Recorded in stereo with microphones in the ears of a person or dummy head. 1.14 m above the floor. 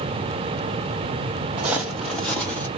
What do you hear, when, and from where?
1.6 s footsteps: 10° right (ahead or behind), 1.8 m; by 2.7 s 10° left (ahead or behind), 2.5 m